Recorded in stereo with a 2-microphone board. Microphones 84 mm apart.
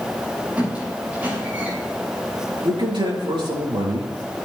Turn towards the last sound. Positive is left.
turn(degrees=-70)  # may be behind; listen again after turning